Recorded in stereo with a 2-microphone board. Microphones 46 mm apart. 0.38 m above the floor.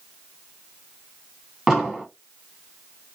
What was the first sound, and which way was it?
An explosion, 5° right (ahead or behind).